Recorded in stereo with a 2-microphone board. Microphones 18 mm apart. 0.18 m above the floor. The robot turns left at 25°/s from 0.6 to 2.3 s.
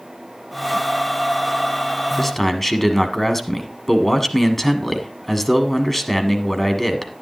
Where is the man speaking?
10° left (ahead or behind), 1.5 m.